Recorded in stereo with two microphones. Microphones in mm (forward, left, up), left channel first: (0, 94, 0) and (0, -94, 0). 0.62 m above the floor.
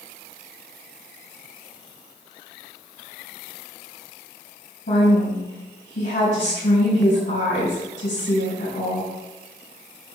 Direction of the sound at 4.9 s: 75° left (ahead or behind).